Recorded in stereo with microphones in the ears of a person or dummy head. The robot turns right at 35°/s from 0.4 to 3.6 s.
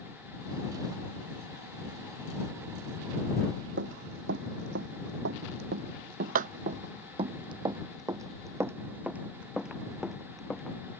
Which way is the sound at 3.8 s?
65° right (ahead or behind).